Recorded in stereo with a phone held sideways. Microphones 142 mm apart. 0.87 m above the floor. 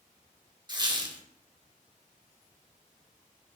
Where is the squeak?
30° right (ahead or behind), 0.6 m.